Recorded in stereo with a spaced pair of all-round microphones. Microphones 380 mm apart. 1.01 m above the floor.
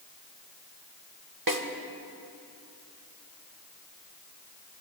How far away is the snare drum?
About 1.2 m.